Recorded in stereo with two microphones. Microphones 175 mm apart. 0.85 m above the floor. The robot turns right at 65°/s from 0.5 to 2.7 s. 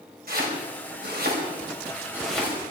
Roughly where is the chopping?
Right.